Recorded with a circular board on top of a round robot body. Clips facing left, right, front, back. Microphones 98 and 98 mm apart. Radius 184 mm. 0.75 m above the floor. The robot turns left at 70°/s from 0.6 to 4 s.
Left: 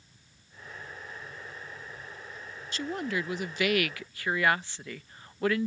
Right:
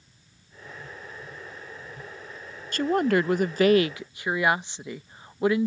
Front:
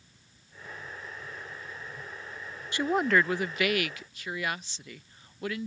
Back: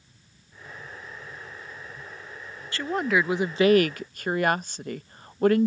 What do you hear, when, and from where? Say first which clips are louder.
2.7 s a woman speaking: right 10 dB, even; 70° right; by 5.7 s 160° right